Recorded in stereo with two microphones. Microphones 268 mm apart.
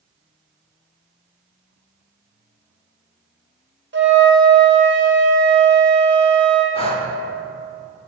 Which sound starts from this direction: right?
A flute, at 3.9 s.